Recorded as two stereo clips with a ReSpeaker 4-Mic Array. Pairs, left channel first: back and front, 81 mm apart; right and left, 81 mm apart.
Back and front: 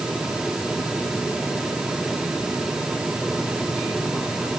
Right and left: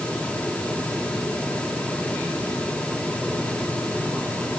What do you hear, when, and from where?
Only background noise.